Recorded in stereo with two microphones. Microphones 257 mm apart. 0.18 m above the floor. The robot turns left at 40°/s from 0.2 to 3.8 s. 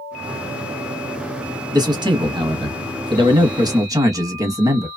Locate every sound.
1.7 s a man speaking: 15° right (ahead or behind), 1.0 m